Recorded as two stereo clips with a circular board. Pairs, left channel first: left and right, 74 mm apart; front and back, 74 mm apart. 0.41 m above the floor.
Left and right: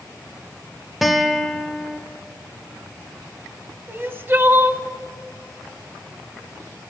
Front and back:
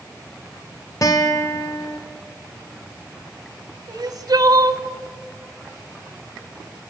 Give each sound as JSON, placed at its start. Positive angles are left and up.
{"t": 1.0, "sound": "a guitar", "azimuth_deg": 0, "distance_m": 1.4}
{"t": 3.9, "sound": "crying", "azimuth_deg": -150, "distance_m": 0.8}